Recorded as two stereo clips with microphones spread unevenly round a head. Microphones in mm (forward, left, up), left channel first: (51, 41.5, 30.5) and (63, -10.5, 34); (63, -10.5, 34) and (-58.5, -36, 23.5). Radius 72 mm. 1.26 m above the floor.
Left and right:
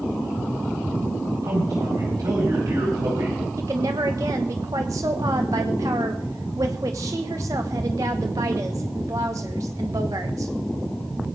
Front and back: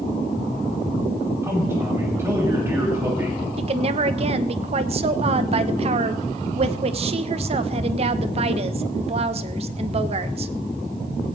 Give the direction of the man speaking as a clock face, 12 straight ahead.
3 o'clock.